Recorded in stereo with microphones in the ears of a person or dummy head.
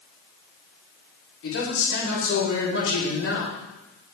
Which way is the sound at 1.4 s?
80° left.